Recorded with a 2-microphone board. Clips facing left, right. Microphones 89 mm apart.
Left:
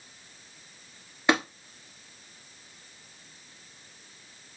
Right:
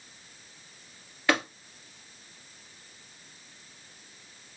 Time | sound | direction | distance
1.3 | tapping | 20° left (ahead or behind) | 1.7 m